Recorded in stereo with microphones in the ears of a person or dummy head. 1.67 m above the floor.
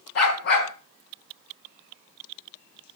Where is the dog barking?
50° left (ahead or behind), 4.5 m.